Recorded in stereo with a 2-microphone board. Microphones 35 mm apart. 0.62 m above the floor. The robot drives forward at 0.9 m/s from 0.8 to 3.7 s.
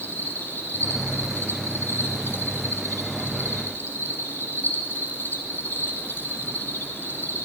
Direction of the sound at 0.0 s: 75° left (ahead or behind).